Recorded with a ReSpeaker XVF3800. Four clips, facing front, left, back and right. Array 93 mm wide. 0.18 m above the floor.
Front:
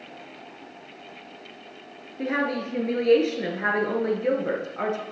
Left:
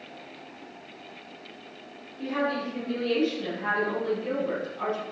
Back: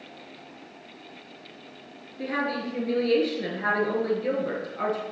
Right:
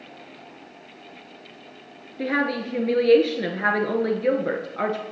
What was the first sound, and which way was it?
A woman speaking, 70° right.